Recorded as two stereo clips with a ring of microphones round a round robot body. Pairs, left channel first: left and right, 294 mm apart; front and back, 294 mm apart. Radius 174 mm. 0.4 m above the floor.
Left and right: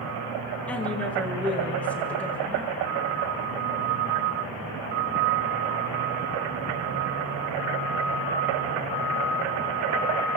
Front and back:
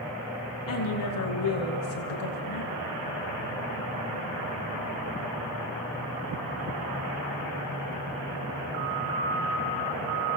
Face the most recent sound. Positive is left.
turn(degrees=5)